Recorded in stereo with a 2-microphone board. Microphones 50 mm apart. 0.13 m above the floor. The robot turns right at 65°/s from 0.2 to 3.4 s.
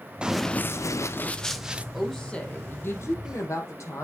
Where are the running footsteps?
20° right (ahead or behind), 0.9 m; by 1.8 s 25° right (ahead or behind), 1.4 m.